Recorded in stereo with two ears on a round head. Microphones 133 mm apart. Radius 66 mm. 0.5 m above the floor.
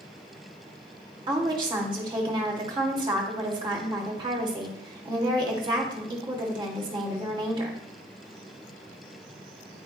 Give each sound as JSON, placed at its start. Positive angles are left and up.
{"t": 1.3, "sound": "a woman speaking", "side_deg": -30, "distance_m": 1.6}